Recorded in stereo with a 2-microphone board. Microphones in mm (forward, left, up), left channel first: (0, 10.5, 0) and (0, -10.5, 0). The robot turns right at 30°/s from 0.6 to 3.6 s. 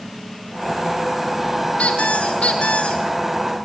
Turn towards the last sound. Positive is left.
turn(degrees=140)